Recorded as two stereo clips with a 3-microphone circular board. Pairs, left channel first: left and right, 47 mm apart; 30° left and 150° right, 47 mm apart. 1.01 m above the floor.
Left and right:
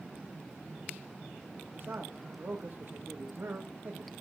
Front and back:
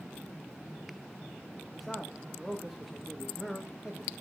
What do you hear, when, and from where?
1.7 s a man speaking: 65° right, 1.4 m